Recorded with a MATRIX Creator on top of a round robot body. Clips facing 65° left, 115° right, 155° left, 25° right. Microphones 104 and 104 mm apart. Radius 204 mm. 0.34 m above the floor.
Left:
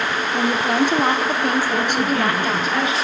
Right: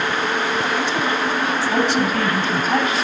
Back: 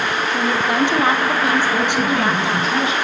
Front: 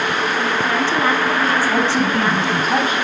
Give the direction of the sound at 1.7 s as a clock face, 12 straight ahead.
2 o'clock.